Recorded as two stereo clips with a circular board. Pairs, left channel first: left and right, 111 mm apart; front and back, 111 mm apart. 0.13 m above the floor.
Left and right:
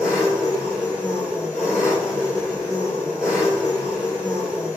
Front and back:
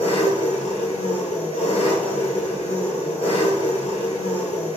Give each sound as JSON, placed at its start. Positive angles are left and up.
{"t": 0.0, "sound": "an engine running", "azimuth_deg": -5, "distance_m": 1.0}